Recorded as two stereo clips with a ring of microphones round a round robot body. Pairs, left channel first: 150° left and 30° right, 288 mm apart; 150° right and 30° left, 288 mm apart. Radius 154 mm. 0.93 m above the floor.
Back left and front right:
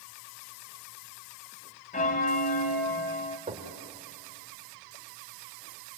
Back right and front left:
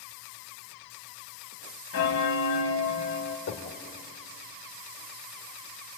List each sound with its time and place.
1.9 s a bell: 160° right, 0.9 m
3.5 s knocking: 100° right, 2.5 m